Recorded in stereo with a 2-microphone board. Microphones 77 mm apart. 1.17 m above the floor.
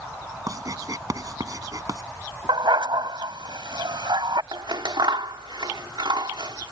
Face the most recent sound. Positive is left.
turn(degrees=-80)